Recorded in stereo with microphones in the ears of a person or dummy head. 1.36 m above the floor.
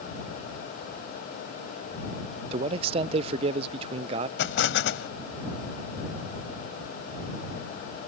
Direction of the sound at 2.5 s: 35° right (ahead or behind).